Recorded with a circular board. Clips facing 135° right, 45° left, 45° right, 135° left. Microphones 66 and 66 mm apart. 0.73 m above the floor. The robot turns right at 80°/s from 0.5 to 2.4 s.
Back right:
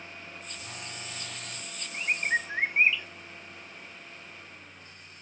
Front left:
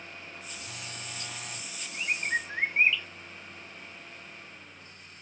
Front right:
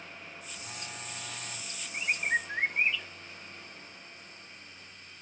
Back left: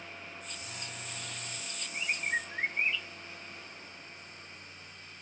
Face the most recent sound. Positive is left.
turn(degrees=-60)